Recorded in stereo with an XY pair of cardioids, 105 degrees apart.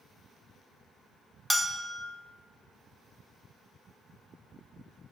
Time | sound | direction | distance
1.5 | a bell | 5° left | 1.0 m